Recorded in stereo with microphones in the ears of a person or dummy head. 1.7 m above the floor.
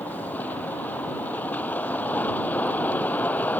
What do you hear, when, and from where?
0.0 s a vehicle: 10° left (ahead or behind)